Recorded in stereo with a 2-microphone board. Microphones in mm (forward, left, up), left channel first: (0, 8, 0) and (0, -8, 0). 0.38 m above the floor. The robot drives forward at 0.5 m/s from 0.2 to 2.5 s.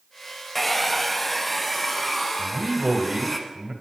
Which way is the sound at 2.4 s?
55° right (ahead or behind).